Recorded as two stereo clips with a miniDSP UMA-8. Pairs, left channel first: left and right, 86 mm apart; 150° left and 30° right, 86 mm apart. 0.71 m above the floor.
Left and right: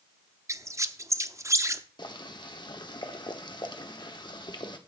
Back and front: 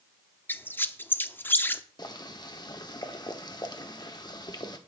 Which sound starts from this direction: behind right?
A squeak, at 0.5 s.